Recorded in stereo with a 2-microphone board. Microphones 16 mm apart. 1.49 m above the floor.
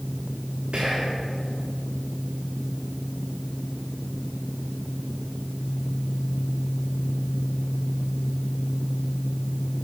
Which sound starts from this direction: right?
Whispering, at 0.7 s.